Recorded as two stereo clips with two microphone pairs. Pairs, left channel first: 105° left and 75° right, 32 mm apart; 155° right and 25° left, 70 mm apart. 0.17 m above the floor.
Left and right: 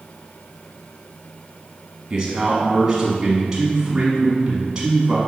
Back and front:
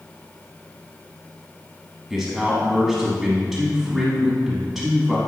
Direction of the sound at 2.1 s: 65° right.